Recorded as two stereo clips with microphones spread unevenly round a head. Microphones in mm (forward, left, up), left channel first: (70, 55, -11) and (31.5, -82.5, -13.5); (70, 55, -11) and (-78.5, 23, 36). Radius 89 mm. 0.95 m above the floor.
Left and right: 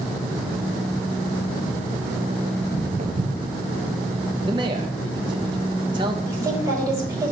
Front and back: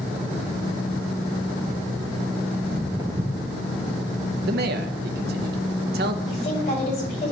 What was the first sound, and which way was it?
Footsteps, 120° right.